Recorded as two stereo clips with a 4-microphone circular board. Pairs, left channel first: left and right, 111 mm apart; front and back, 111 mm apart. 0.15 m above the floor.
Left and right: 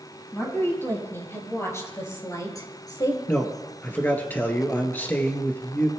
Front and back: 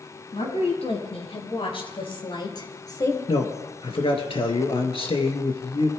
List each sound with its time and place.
0.3 s a woman speaking: 20° left, 6.5 m; by 3.2 s 55° left, 2.5 m
3.3 s a man speaking: 20° left, 2 m